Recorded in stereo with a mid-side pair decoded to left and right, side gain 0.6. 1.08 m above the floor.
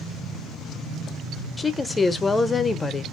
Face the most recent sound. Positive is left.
turn(degrees=20)